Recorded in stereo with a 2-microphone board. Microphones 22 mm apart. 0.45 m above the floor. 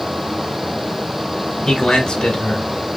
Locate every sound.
1.6 s a man speaking: 45° left (ahead or behind), 1.8 m